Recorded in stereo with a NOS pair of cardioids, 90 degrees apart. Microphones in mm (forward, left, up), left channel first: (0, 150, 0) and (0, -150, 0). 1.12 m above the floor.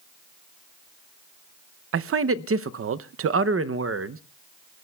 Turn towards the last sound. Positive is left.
turn(degrees=-45)